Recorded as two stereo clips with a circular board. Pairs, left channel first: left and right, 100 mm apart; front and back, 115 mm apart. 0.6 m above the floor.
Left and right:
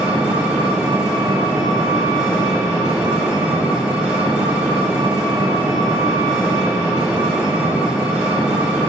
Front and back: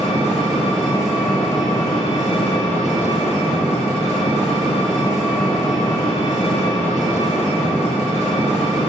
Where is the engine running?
10° right, 2 m.